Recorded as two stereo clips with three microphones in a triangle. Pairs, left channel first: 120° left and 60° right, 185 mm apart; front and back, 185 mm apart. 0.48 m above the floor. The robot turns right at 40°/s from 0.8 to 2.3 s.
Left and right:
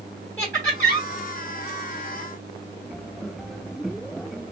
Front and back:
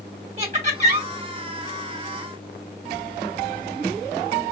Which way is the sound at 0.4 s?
165° right.